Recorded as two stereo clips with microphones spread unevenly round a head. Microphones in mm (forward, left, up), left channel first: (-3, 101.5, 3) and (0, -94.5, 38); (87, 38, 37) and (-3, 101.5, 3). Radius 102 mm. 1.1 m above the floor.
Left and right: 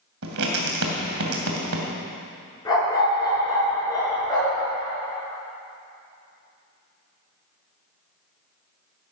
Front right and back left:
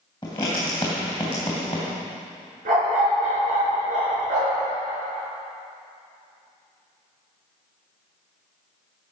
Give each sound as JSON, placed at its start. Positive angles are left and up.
{"t": 0.2, "sound": "writing", "azimuth_deg": -100, "distance_m": 2.5}
{"t": 2.6, "sound": "a dog barking", "azimuth_deg": 165, "distance_m": 6.0}